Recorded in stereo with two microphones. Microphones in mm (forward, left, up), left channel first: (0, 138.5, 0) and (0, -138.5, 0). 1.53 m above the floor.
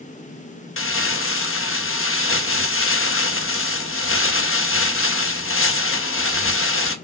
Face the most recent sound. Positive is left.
turn(degrees=50)  # may be behind; listen again after turning